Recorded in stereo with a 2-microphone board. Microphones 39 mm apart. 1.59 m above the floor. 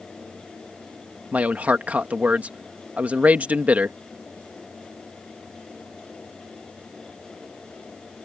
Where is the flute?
No flute in this recording.